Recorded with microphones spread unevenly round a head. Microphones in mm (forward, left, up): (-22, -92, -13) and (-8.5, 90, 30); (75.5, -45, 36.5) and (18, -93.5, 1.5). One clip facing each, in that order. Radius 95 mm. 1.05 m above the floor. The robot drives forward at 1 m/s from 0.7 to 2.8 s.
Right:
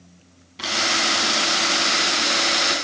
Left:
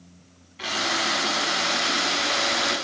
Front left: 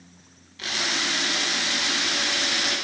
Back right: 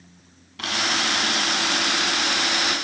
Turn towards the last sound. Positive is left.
turn(degrees=-135)